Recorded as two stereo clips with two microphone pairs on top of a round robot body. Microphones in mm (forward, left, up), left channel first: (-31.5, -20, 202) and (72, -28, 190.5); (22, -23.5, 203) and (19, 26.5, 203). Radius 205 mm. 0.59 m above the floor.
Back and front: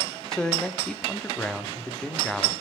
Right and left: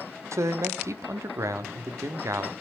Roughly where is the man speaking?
Left.